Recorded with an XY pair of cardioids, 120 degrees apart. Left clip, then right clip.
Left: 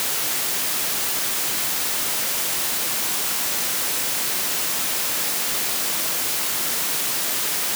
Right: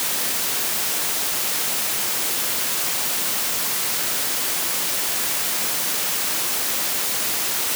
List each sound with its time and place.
Only background noise.